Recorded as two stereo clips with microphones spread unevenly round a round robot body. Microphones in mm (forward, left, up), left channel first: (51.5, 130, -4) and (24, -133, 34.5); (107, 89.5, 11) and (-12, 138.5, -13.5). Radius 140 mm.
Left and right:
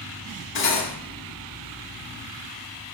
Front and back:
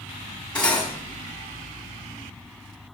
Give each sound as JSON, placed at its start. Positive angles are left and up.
{"t": 0.6, "sound": "cutlery clinking", "azimuth_deg": 60, "distance_m": 1.8}